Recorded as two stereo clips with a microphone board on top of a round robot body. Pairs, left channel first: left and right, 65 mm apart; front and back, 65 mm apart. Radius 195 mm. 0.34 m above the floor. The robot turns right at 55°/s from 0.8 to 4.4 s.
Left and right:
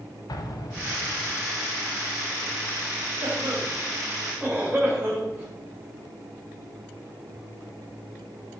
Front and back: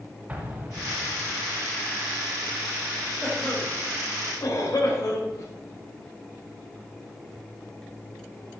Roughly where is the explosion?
Left.